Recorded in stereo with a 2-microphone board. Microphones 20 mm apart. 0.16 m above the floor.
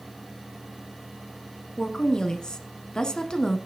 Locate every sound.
1.8 s a woman speaking: 35° left (ahead or behind), 1.2 m